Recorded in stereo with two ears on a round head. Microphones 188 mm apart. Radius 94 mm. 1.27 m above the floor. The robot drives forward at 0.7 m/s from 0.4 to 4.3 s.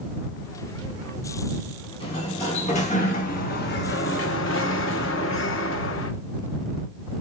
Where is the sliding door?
25° left (ahead or behind), 2.5 m; by 6.1 s 65° left (ahead or behind), 1.1 m.